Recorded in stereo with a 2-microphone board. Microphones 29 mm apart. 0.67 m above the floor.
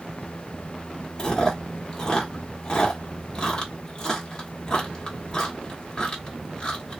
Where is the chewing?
25° left (ahead or behind), 1.1 m.